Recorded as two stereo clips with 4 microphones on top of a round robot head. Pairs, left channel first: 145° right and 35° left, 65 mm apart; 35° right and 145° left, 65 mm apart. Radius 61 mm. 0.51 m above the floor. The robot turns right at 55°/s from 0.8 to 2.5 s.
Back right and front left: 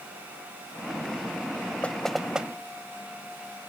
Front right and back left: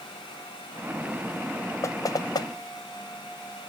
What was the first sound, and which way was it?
Knocking, 75° right.